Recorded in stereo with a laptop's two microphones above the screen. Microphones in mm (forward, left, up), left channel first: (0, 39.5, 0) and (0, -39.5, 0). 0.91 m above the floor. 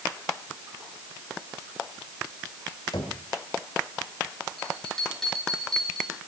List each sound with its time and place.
2.9 s knocking: 65° left (ahead or behind), 2.5 m
4.6 s a bell: 5° left (ahead or behind), 7 m